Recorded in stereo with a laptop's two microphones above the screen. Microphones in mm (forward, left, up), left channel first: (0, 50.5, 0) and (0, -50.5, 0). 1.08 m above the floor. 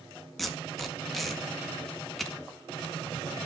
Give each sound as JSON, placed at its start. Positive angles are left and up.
{"t": 0.4, "sound": "tape being pulled", "side_deg": 0, "distance_m": 1.9}